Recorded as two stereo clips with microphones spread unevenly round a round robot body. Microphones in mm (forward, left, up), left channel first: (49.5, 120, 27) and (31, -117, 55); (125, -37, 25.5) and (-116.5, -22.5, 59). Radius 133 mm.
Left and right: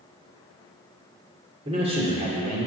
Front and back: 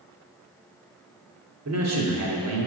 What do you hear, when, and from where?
1.6 s a man speaking: 165° right, 2.5 m